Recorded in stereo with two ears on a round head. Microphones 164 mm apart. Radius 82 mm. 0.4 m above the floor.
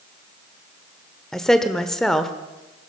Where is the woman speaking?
Centre (ahead or behind), 1.0 m.